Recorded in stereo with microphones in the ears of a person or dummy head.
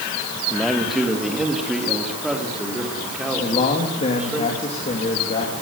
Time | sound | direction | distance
0.5 | a man speaking | 5° left (ahead or behind) | 2.5 m
3.4 | a man speaking | 35° left (ahead or behind) | 3.5 m